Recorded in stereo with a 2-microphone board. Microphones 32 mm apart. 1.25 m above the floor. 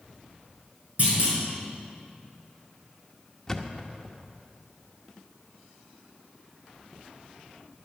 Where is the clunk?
40° right (ahead or behind), 5 m.